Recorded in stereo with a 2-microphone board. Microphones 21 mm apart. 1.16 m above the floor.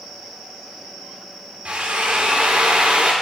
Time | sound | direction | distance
1.6 | a drill | 65° right (ahead or behind) | 2 m